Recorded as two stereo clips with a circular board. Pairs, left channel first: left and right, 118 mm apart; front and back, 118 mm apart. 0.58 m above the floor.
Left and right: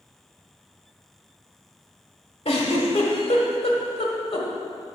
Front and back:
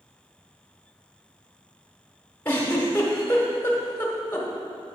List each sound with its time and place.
2.5 s a giggle: 75° left, 1.4 m